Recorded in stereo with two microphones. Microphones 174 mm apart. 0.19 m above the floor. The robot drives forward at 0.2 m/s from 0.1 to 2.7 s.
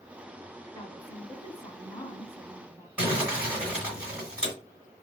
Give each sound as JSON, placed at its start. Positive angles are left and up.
{"t": 0.7, "sound": "a woman speaking", "side_deg": 20, "distance_m": 1.4}
{"t": 3.0, "sound": "crumpling", "side_deg": -5, "distance_m": 1.9}